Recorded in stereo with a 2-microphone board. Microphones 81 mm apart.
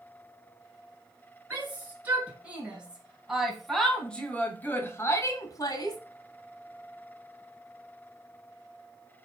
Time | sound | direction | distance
1.5 | a shout | 25° right (ahead or behind) | 3 m